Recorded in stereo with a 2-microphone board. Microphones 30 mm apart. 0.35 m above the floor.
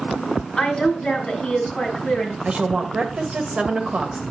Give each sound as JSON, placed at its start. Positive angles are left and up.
{"t": 0.6, "sound": "a woman speaking", "side_deg": 25, "distance_m": 3.5}
{"t": 2.5, "sound": "a woman speaking", "side_deg": -40, "distance_m": 1.7}